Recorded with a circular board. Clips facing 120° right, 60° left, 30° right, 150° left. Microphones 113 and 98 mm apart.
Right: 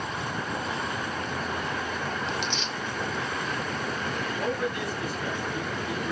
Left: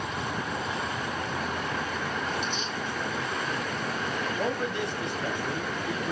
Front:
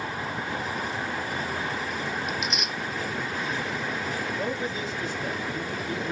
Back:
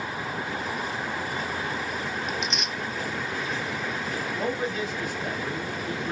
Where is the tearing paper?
115° right, 0.6 m.